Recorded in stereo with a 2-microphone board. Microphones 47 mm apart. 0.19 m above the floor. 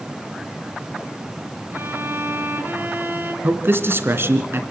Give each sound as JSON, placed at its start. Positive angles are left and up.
{"t": 1.7, "sound": "a violin", "side_deg": -50, "distance_m": 2.5}
{"t": 3.4, "sound": "a man speaking", "side_deg": -55, "distance_m": 2.0}